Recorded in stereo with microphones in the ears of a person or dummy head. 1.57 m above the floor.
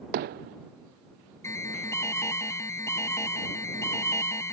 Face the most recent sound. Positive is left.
turn(degrees=15)  # may be behind; listen again after turning